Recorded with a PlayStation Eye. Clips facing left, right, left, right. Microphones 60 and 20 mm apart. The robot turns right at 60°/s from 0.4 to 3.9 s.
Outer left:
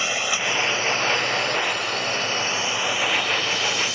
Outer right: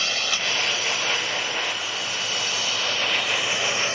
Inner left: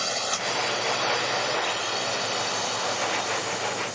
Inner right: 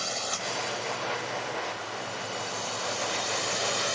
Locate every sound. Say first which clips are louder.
0.0 s a drone: outer left 2 dB, inner left 4 dB; 15° left (ahead or behind); by 4.0 s 35° right (ahead or behind)